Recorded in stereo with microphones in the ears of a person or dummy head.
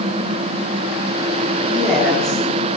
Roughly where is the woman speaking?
Centre.